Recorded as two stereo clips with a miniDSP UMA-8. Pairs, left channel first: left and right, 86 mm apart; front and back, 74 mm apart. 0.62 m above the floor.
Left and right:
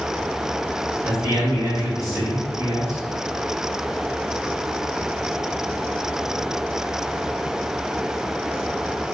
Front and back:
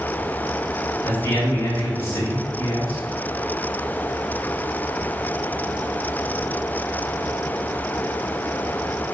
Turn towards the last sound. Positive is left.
turn(degrees=-45)